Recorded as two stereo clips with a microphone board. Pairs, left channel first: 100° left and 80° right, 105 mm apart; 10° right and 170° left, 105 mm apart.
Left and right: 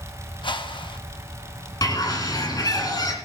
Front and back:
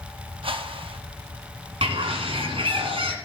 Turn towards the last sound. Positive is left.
turn(degrees=150)